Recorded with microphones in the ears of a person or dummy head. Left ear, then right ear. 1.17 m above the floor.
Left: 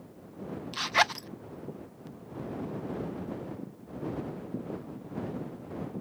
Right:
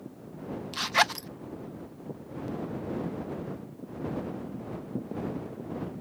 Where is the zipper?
10° left (ahead or behind).